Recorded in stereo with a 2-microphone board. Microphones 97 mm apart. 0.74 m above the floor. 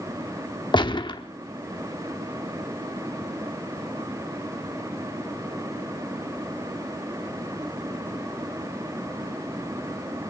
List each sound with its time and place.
0.7 s a gunshot: 55° left (ahead or behind), 1.0 m